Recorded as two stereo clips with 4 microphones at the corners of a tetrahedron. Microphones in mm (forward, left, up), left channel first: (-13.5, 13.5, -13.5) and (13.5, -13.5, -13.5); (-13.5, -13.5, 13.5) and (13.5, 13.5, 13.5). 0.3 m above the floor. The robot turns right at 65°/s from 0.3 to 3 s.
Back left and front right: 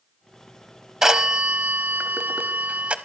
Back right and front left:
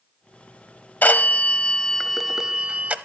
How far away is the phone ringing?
About 0.8 m.